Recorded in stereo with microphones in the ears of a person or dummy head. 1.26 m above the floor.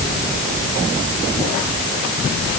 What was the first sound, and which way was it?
Only background noise.